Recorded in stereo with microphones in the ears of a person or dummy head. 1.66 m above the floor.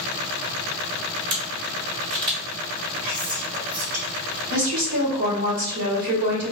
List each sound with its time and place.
1.3 s a camera shutter: 25° right (ahead or behind), 1.3 m
3.0 s whispering: 45° right (ahead or behind), 1.6 m
4.5 s a woman speaking: 50° right (ahead or behind), 1.9 m